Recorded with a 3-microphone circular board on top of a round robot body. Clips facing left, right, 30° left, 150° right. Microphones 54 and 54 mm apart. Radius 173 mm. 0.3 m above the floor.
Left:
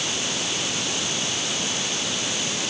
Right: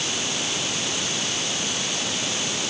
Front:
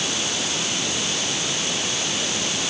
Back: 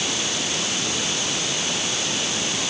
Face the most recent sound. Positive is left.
No sound to turn to.